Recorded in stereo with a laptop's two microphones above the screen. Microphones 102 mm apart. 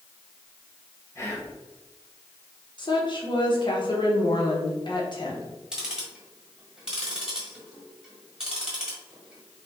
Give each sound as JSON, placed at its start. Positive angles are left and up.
{"t": 1.1, "sound": "whispering", "side_deg": 25, "distance_m": 1.1}
{"t": 2.8, "sound": "a woman speaking", "side_deg": 50, "distance_m": 0.8}
{"t": 5.7, "sound": "ticking", "side_deg": -5, "distance_m": 1.2}